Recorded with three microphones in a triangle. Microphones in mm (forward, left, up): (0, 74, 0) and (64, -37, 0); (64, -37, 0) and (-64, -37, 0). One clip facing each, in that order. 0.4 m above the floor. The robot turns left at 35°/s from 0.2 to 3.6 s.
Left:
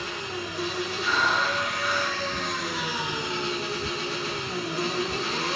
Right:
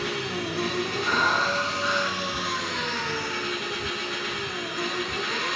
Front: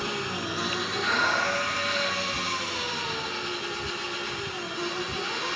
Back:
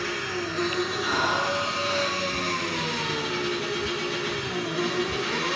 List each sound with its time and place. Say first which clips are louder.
0.0 s an engine running: right 4 dB, back 2 dB; 65° right, 5.5 m; by 5.6 s 175° left, 5.5 m
1.0 s breathing: left 1 dB, front 2 dB; 130° right, 3.5 m; by 2.2 s 175° right, 3.5 m